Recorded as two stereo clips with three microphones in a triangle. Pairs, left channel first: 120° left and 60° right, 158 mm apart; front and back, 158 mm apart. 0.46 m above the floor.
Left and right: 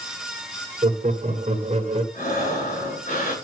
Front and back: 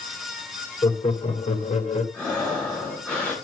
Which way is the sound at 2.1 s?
80° left.